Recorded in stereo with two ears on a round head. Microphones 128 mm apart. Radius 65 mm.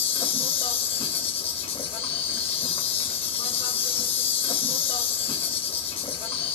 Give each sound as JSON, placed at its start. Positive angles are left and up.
{"t": 0.0, "sound": "an insect", "side_deg": 40, "distance_m": 2.0}